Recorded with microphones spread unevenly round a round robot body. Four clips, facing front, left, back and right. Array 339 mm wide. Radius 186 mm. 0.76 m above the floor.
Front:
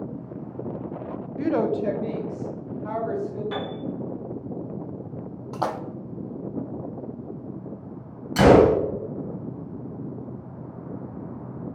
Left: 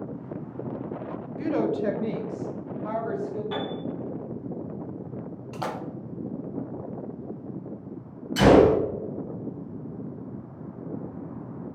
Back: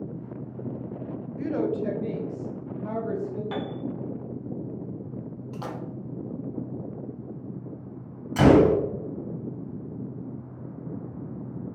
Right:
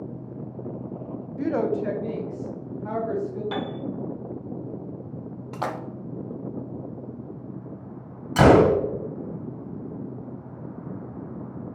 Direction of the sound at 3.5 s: 125° right.